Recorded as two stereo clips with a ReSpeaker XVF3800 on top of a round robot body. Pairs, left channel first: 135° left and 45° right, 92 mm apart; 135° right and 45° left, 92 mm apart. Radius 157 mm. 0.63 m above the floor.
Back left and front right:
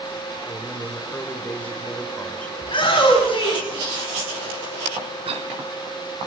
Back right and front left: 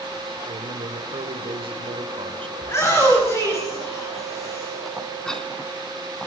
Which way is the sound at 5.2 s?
55° right.